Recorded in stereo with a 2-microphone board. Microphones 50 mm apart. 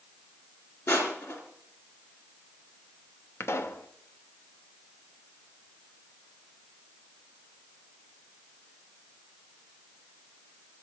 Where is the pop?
60° left (ahead or behind), 0.8 m.